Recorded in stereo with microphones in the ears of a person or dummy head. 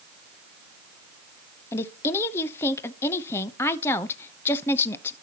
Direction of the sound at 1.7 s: 10° left (ahead or behind).